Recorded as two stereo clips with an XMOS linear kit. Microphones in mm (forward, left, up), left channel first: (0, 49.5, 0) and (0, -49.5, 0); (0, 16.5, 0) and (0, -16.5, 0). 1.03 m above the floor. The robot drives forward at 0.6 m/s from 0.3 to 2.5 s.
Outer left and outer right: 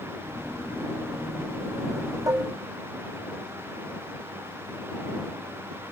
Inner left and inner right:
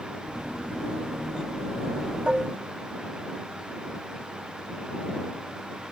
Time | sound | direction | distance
2.3 | dishes clattering | 35° right (ahead or behind) | 1.0 m